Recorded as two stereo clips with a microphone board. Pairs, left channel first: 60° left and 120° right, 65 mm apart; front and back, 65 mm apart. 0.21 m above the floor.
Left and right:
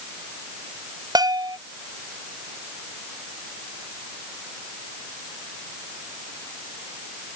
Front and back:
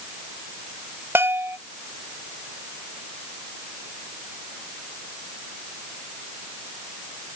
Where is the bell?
125° right.